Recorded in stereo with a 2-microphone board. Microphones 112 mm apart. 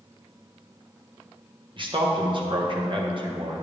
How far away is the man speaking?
About 1.4 m.